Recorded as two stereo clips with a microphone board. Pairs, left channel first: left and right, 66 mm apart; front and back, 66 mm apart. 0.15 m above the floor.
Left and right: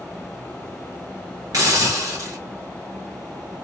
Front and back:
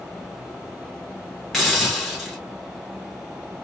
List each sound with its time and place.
1.5 s a hiss: 90° right, 1.7 m